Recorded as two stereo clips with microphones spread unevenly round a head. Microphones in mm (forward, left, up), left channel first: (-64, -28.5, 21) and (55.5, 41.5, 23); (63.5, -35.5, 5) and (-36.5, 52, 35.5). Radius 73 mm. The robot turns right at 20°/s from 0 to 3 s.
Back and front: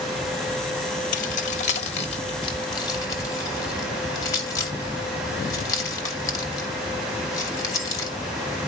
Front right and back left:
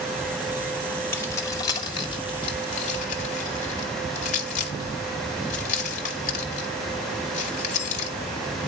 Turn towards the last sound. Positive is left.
turn(degrees=-80)